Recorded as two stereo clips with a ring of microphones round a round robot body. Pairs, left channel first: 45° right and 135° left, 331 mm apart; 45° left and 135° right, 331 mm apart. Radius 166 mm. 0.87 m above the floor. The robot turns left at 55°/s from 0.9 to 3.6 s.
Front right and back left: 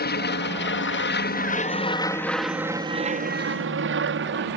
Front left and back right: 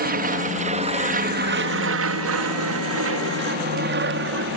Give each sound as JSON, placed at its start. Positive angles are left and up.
{"t": 0.0, "sound": "an aircraft", "azimuth_deg": -90}